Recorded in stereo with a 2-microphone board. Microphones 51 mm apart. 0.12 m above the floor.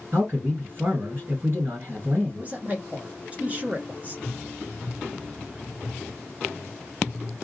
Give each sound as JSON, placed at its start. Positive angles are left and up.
{"t": 0.1, "sound": "a man speaking", "side_deg": -40, "distance_m": 2.0}
{"t": 2.4, "sound": "a man speaking", "side_deg": -30, "distance_m": 1.4}